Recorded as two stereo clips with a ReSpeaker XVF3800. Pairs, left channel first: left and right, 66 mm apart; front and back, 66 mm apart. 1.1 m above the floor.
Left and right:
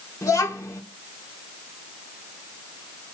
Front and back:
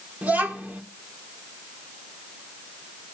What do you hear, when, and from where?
0.2 s a child speaking: 115° left, 1.7 m